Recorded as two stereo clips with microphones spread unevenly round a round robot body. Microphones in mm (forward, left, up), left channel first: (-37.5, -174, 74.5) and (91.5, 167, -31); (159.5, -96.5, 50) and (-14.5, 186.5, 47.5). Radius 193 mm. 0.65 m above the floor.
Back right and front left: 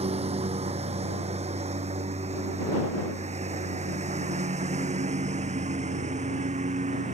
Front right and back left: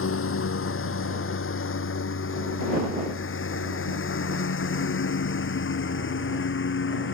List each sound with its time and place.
0.0 s a lawn mower: 5° right